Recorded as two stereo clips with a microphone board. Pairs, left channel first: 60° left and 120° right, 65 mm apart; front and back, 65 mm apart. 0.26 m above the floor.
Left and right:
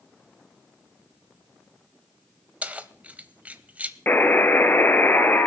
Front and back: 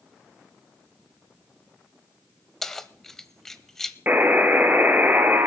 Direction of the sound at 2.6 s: 75° right.